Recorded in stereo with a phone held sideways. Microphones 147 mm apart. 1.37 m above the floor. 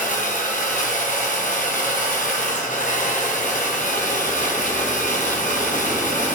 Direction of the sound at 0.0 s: 65° left (ahead or behind).